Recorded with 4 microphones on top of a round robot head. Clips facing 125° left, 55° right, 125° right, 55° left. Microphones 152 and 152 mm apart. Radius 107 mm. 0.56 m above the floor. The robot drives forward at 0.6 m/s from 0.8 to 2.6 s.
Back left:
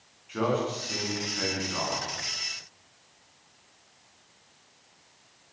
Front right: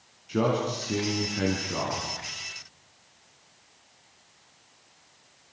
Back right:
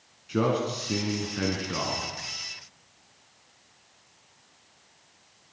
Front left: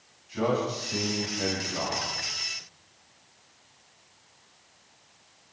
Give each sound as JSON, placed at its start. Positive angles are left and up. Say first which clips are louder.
{"t": 0.3, "sound": "a man speaking", "louder": "front right 2 dB, back right 1 dB", "azimuth_deg": -105, "distance_m": 5.5}